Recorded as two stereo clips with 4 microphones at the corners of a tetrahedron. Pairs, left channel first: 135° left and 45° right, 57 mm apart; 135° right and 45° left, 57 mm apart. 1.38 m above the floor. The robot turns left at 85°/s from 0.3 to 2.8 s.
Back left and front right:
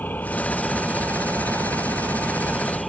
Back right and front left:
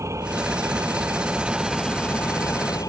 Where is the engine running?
75° left; by 2.9 s 135° right.